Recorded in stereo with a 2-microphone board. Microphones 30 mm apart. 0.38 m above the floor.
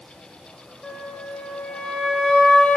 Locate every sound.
0.8 s a flute: 35° left (ahead or behind), 0.8 m